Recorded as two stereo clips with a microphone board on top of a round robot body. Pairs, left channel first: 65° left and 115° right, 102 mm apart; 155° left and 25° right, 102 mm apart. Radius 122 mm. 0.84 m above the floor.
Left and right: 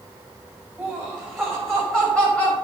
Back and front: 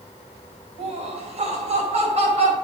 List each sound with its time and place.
0.8 s laughter: 25° right, 5 m; by 2.5 s 10° right, 5 m